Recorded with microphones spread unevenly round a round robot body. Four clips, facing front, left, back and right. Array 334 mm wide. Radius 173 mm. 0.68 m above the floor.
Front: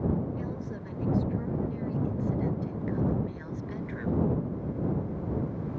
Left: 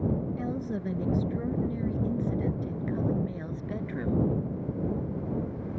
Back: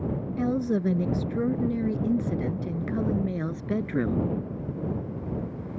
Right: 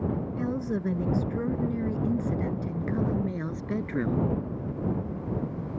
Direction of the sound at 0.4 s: 165° right.